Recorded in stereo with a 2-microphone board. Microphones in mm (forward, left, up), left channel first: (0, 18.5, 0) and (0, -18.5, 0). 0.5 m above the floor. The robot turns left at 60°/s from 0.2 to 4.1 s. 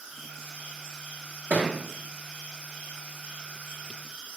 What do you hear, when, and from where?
1.5 s a thud: 50° right (ahead or behind), 0.6 m; by 1.8 s 40° right (ahead or behind), 0.6 m